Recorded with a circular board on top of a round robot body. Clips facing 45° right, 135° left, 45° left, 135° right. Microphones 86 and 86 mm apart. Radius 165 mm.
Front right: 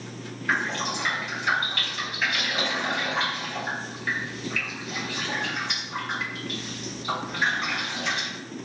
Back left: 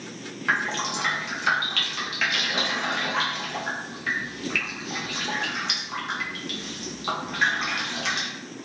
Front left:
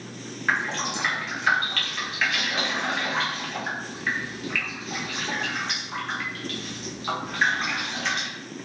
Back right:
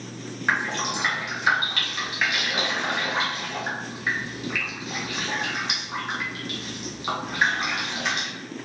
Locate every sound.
0.5 s dripping: 145° left, 0.7 m